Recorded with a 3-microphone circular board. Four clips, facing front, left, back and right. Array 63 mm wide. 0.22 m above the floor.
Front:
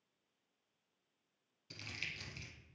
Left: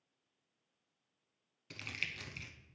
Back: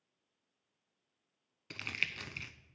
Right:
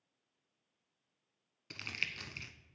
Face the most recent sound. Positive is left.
turn(degrees=-160)